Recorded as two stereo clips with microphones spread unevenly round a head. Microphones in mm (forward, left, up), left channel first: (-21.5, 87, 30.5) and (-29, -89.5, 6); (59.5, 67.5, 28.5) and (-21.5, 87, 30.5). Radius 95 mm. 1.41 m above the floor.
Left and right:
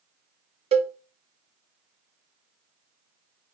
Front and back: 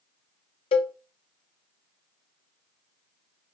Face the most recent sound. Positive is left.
turn(degrees=-30)